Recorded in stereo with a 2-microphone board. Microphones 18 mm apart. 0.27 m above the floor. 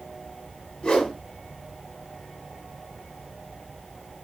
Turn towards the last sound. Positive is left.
turn(degrees=60)  # may be behind; listen again after turning